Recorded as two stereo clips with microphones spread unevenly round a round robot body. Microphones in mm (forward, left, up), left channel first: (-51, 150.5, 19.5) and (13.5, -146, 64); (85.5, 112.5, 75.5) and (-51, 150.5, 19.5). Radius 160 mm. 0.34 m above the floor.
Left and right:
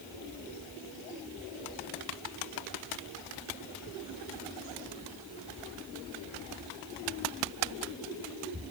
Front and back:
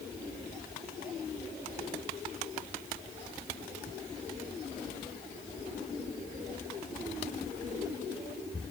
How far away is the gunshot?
I don't hear a gunshot.